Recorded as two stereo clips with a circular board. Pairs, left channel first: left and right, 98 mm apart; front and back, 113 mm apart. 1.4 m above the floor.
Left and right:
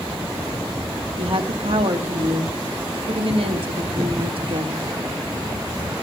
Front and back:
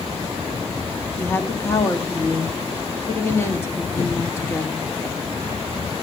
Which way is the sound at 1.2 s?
70° right.